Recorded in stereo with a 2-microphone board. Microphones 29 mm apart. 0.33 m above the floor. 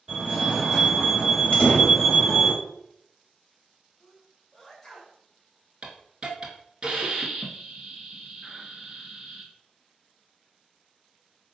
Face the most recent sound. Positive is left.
turn(degrees=-35)  # may be behind; listen again after turning